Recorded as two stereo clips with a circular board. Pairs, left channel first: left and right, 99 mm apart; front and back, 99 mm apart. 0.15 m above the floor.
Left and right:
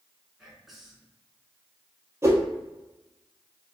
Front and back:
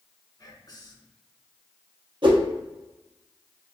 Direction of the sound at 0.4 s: 5° right.